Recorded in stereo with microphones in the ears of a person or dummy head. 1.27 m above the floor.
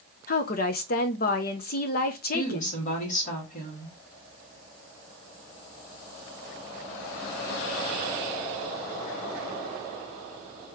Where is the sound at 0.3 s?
50° left (ahead or behind), 0.8 m.